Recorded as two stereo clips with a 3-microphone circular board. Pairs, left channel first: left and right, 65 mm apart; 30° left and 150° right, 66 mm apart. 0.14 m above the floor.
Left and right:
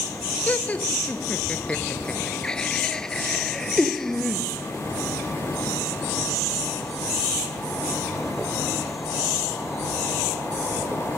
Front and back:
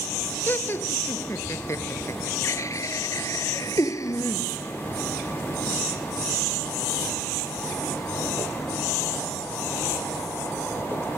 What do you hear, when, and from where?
0.5 s laughter: 45° left; by 4.5 s 5° left